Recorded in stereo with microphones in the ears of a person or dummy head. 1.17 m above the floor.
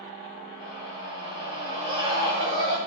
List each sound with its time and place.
0.6 s a scream: 40° right (ahead or behind), 5 m